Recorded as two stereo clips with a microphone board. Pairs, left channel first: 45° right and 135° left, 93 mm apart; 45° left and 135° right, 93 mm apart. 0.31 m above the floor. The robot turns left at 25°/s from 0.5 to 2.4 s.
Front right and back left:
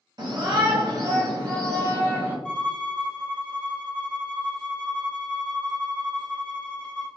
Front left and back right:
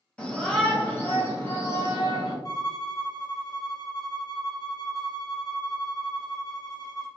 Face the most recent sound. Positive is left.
turn(degrees=30)